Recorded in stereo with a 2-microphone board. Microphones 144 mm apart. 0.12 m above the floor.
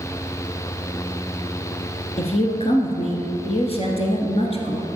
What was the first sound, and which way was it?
A woman speaking, 45° left (ahead or behind).